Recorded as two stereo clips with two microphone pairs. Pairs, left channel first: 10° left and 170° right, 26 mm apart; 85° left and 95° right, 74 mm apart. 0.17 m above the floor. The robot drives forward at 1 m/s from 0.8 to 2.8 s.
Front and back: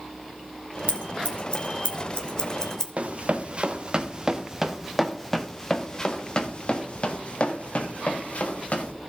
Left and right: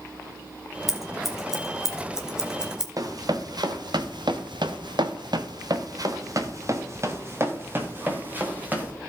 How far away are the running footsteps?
About 1.7 m.